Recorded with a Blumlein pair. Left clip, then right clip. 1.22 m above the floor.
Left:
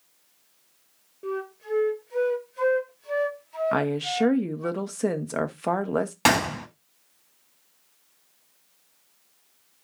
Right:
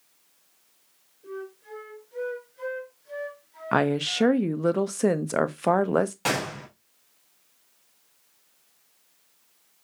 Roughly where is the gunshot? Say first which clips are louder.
Left 6 dB; ahead left.